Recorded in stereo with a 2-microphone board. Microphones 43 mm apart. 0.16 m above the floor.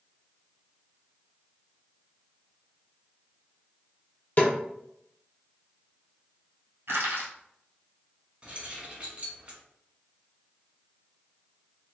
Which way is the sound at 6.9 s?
65° right (ahead or behind).